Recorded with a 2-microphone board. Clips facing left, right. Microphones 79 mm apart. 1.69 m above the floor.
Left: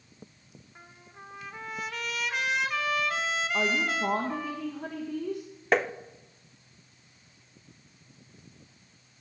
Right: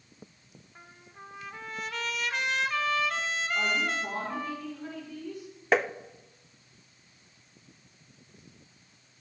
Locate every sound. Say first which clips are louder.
0.8 s a trumpet: even; 5° left (ahead or behind), 1.5 m
3.5 s a woman speaking: left 1 dB; 80° left, 2.5 m
5.7 s tapping: even; centre (ahead or behind), 0.6 m